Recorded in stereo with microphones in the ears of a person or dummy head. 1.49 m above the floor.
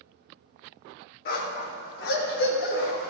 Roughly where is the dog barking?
Left.